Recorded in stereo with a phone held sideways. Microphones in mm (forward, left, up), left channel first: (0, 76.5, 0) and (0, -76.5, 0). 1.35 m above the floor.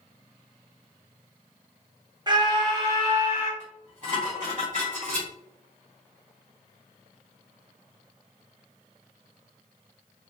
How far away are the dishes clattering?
About 1.7 m.